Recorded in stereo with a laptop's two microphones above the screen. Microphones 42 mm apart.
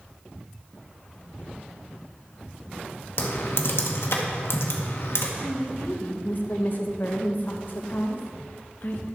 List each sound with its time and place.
3.2 s typing on a keyboard: 70° left (ahead or behind), 1.0 m
5.4 s a woman speaking: 50° left (ahead or behind), 1.1 m